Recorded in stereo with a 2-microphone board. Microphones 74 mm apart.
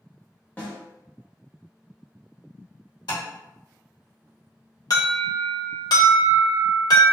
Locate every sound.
0.6 s a snare drum: 25° left (ahead or behind), 1.1 m
3.1 s tapping: 75° left (ahead or behind), 2.0 m
4.9 s an alarm: 60° left (ahead or behind), 0.9 m